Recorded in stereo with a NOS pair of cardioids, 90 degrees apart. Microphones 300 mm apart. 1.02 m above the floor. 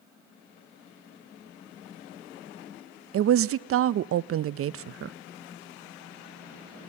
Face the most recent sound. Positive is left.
turn(degrees=-50)